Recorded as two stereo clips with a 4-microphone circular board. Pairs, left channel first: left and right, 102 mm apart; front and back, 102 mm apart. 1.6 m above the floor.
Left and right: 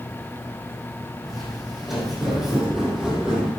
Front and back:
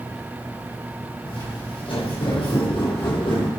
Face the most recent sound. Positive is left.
turn(degrees=-10)